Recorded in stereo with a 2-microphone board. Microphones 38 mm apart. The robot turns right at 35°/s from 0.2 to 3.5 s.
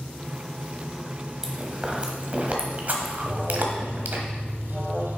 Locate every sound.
0.0 s running water: 165° left, 1.0 m; by 5.2 s 80° right, 1.0 m
1.4 s chewing: 15° right (ahead or behind), 1.2 m; by 4.2 s 55° right (ahead or behind), 1.2 m
3.2 s an alarm: 15° right (ahead or behind), 1.1 m; by 5.2 s 5° right (ahead or behind), 1.1 m